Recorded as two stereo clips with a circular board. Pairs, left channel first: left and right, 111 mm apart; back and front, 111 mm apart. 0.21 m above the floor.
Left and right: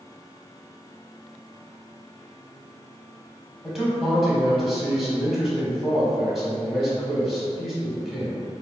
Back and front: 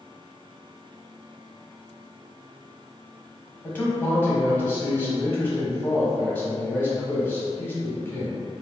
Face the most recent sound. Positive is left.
turn(degrees=-170)